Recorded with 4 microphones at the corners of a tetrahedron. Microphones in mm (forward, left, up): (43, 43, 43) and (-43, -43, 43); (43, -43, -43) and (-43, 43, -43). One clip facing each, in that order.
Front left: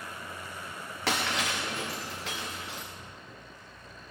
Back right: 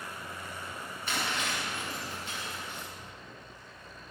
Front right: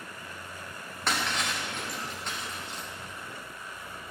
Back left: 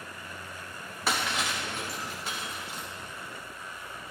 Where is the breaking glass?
50° left, 3.5 m.